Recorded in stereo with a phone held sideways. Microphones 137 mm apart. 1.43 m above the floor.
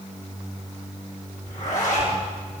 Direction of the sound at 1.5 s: 75° left (ahead or behind).